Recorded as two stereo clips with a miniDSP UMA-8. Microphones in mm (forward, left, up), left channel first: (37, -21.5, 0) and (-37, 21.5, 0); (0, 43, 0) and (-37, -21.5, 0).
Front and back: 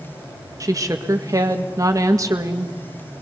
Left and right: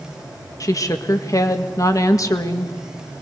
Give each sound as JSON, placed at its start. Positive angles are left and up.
{"t": 0.6, "sound": "a woman speaking", "azimuth_deg": 100, "distance_m": 1.9}